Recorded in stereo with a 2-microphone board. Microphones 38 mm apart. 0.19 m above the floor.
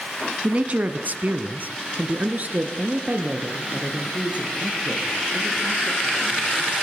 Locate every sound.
0.4 s a man speaking: 30° right (ahead or behind), 1.5 m